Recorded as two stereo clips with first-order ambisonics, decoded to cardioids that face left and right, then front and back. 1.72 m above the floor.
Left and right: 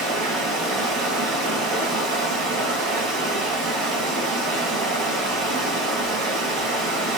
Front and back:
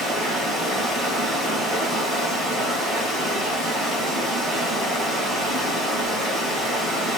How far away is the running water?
About 2.5 m.